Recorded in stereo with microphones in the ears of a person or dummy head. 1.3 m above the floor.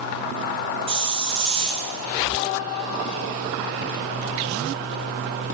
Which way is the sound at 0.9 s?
30° right (ahead or behind).